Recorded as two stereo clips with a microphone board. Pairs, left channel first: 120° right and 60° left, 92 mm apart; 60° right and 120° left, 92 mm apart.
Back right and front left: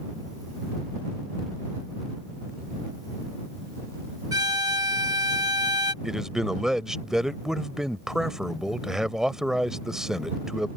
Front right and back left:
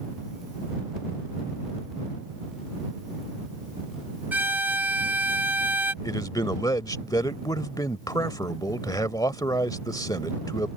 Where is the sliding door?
I don't hear a sliding door.